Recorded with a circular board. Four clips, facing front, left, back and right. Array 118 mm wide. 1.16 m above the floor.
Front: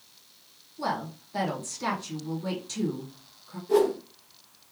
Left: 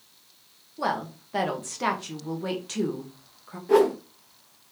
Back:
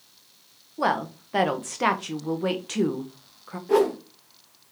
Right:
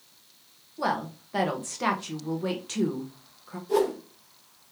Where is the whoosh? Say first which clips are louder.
Left 5 dB, back 2 dB; 120° left, 0.8 m.